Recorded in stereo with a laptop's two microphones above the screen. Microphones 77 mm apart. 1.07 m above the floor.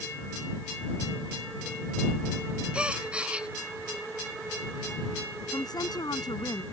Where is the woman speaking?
65° left (ahead or behind).